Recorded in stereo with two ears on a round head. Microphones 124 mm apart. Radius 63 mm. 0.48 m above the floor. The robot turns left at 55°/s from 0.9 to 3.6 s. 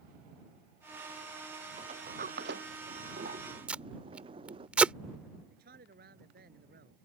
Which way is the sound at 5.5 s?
75° right (ahead or behind).